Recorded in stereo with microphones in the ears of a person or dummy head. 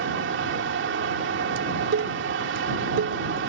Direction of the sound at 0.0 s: 65° right (ahead or behind).